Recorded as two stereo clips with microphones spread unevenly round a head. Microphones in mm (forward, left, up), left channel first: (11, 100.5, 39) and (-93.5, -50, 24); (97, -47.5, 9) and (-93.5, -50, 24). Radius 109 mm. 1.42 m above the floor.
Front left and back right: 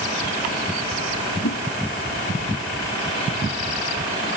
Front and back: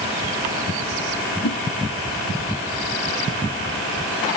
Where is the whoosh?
25° left.